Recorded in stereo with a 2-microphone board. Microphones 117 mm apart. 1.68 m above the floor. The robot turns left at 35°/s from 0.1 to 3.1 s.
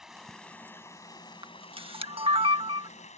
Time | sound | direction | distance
0.0 | running water | 175° right | ?
1.4 | a camera shutter | 45° right (ahead or behind) | ?